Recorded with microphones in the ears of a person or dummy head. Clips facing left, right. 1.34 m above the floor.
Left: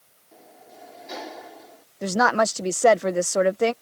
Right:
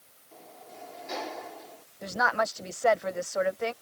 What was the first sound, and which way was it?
A sliding door, 10° left (ahead or behind).